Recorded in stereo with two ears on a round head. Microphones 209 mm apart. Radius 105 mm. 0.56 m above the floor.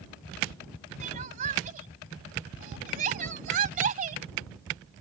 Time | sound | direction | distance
1.0 | crying | 35° right (ahead or behind) | ?